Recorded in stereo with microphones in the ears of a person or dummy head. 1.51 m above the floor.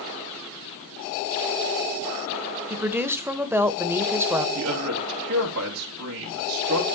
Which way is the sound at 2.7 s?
10° right (ahead or behind).